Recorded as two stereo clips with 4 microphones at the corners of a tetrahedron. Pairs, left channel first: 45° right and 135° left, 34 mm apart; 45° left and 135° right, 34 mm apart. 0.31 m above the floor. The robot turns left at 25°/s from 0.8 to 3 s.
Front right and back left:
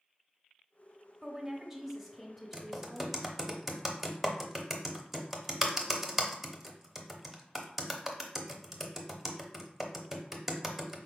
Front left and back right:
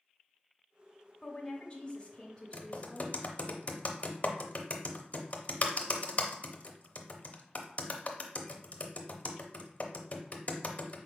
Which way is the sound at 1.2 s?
70° left.